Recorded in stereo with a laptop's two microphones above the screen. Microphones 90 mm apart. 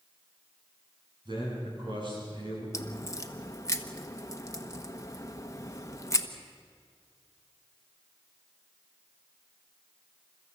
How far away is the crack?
About 1.1 m.